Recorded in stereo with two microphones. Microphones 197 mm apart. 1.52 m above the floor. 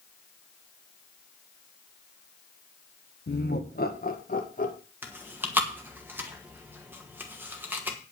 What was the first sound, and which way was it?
Laughter, 60° left (ahead or behind).